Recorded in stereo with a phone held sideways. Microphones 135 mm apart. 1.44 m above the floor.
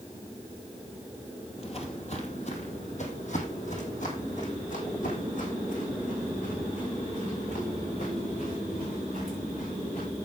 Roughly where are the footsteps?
Left.